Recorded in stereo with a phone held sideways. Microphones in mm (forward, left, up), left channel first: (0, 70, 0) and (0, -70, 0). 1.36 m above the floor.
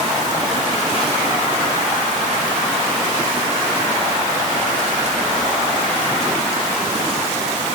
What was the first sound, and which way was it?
Only background noise.